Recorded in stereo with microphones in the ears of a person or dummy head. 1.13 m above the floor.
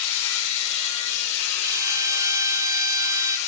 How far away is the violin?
About 1.1 m.